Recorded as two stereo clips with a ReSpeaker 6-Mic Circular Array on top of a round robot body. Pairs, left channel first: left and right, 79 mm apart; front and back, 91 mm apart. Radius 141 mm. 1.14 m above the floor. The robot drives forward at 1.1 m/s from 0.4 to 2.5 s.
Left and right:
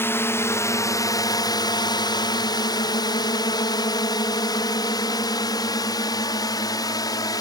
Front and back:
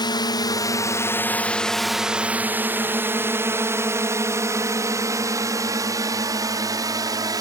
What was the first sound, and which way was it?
A drone, 35° left.